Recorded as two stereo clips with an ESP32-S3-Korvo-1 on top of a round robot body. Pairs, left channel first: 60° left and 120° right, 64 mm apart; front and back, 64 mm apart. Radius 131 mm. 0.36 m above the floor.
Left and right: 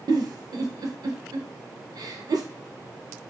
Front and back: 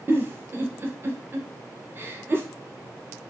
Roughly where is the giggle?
Behind right.